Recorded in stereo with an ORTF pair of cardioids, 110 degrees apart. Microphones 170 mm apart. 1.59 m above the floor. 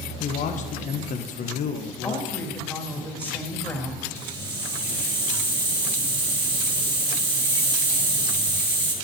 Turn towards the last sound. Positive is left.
turn(degrees=-25)